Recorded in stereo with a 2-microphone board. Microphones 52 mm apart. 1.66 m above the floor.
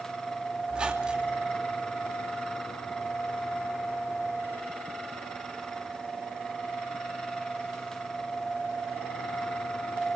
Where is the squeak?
20° right (ahead or behind), 2.5 m.